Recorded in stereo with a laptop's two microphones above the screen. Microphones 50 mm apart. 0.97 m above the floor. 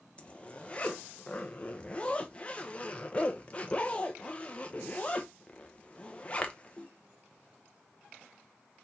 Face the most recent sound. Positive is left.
turn(degrees=25)  # may be behind; listen again after turning